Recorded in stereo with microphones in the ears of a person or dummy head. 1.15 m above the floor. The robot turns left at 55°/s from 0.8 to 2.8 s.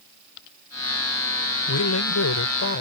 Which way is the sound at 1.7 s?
115° left.